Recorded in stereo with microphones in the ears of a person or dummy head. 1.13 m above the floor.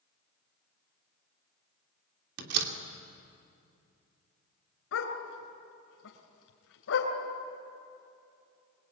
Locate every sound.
2.4 s a door slam: 65° right (ahead or behind), 2.5 m
4.9 s a dog barking: 80° left, 4 m